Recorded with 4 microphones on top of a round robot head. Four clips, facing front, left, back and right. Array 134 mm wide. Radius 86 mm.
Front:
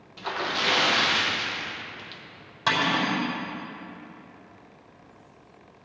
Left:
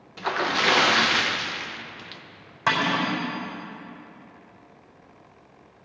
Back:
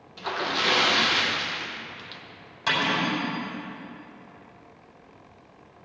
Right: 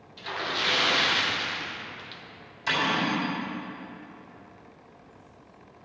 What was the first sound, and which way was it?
A splash, 95° left.